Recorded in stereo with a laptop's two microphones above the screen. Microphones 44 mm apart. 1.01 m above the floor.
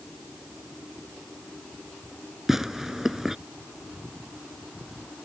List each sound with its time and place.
2.5 s tearing paper: 5° right (ahead or behind)